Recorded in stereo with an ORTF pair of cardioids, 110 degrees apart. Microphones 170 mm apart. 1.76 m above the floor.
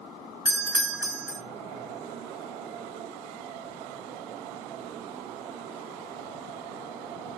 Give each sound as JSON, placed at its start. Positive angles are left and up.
{"t": 0.5, "sound": "a doorbell", "azimuth_deg": -15, "distance_m": 1.8}